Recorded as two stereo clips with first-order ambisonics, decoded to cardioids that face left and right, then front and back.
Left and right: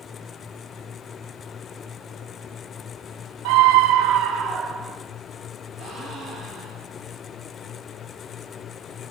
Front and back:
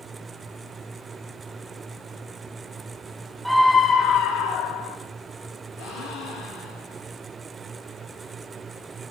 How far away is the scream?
About 0.9 m.